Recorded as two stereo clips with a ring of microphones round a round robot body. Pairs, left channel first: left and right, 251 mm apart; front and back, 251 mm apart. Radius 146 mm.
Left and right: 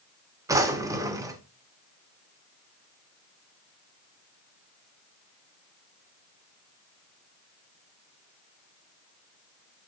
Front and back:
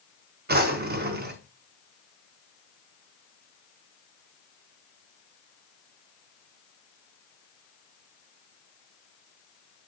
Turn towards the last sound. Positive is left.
turn(degrees=-160)